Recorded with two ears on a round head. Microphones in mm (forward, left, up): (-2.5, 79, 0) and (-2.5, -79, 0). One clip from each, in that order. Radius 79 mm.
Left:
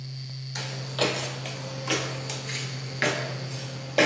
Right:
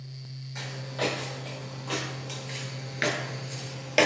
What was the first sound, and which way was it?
Footsteps, 65° left (ahead or behind).